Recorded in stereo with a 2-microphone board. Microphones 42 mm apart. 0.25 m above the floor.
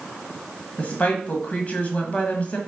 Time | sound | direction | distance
0.8 | a woman speaking | 35° left (ahead or behind) | 1.4 m